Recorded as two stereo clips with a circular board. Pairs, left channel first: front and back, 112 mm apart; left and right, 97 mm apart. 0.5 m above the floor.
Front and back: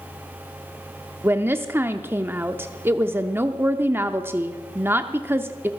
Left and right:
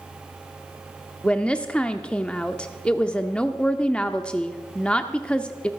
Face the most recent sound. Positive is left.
turn(degrees=150)